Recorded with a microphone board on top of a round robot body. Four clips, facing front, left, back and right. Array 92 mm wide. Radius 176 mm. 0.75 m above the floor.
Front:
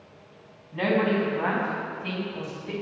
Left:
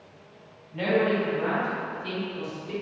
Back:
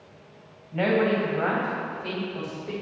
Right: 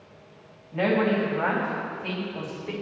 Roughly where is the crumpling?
No crumpling in this recording.